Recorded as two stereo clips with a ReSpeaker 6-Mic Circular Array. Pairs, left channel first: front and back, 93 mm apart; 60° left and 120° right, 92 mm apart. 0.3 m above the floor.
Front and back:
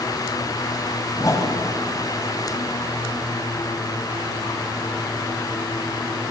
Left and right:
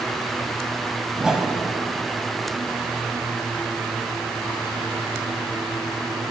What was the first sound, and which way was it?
A whoosh, 40° right.